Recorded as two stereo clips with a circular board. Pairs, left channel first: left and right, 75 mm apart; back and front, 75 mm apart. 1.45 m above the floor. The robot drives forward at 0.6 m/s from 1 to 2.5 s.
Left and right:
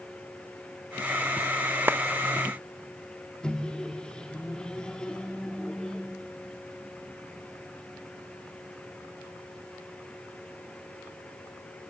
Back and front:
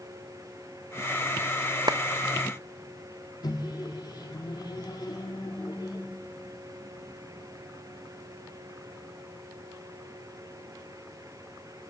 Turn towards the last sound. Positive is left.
turn(degrees=165)